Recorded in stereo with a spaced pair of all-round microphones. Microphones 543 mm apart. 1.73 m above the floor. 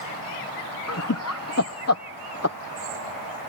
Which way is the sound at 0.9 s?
25° left (ahead or behind).